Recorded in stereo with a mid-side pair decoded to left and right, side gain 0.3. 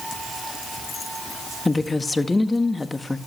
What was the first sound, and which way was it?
A woman speaking, 25° left.